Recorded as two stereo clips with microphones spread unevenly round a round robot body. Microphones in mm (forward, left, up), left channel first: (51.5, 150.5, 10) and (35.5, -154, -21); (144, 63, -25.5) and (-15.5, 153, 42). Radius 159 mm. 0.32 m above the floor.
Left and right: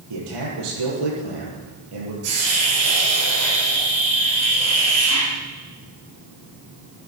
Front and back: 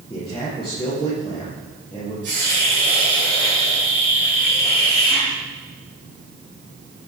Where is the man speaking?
115° right, 9 m.